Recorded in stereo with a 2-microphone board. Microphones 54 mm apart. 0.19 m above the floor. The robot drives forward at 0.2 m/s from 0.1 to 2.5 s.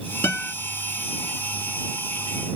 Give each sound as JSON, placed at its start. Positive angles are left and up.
{"t": 0.2, "sound": "a guitar", "side_deg": 45, "distance_m": 0.8}